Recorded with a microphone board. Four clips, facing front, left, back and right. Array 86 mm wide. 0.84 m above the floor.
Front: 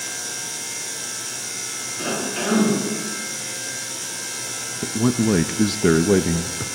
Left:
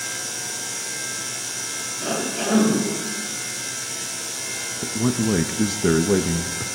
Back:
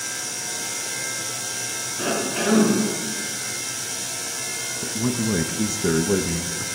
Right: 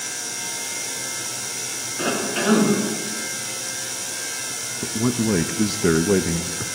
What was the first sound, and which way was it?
A cough, 90° right.